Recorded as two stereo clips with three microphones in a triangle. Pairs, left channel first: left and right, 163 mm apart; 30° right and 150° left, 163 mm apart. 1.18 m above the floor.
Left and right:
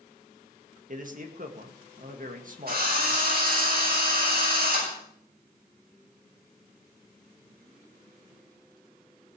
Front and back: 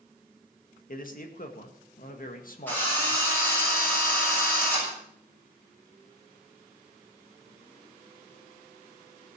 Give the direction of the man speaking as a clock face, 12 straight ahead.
2 o'clock.